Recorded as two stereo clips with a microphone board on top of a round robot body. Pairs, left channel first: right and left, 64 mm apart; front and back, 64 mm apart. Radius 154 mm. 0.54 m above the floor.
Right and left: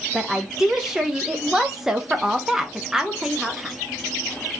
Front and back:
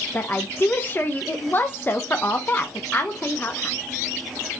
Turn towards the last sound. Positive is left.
turn(degrees=15)